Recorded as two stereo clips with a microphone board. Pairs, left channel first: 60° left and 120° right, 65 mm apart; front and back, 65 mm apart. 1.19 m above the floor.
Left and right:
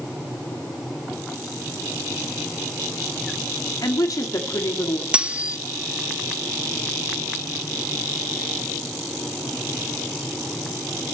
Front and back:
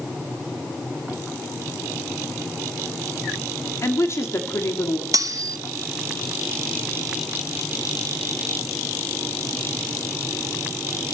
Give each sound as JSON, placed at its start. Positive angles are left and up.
{"t": 3.8, "sound": "a woman speaking", "azimuth_deg": 40, "distance_m": 2.5}
{"t": 5.1, "sound": "cutlery clinking", "azimuth_deg": 170, "distance_m": 0.7}